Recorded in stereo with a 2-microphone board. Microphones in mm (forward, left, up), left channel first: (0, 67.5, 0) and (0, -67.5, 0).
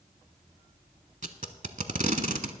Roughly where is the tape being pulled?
Right.